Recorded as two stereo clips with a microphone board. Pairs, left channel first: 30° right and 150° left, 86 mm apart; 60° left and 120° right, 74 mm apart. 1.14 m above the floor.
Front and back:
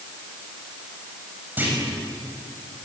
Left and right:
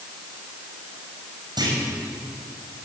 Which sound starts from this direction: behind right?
A clunk, at 1.6 s.